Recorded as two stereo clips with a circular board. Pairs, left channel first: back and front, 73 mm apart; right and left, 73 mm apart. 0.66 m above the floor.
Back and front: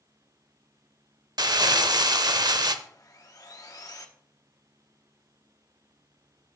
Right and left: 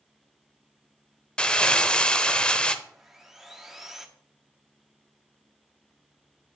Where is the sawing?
170° left, 1.1 m.